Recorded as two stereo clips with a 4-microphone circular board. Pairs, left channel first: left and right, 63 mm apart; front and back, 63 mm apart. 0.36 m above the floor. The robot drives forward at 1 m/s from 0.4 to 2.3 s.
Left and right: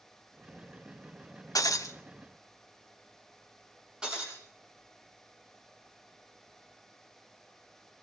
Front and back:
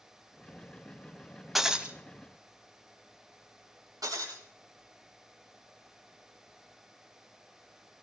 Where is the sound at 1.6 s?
95° left, 1.1 m; by 2.0 s 115° left, 1.2 m.